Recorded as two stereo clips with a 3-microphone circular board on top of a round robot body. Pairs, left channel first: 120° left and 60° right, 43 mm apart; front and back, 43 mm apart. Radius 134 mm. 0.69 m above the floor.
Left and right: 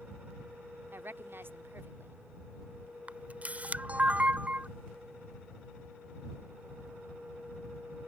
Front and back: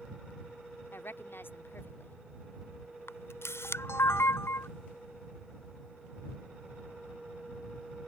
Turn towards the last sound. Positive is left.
turn(degrees=-5)